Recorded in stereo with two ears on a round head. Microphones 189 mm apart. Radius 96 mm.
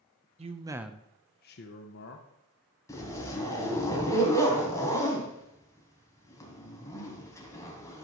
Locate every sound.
0.4 s a man speaking: 30° right (ahead or behind), 0.8 m; by 2.3 s 55° left (ahead or behind), 1.2 m
2.9 s a zipper: 15° left (ahead or behind), 3 m